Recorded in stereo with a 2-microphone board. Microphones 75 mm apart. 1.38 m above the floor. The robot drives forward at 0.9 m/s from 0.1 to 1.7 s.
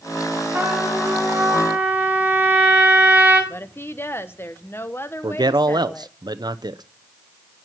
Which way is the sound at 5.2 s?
70° right (ahead or behind).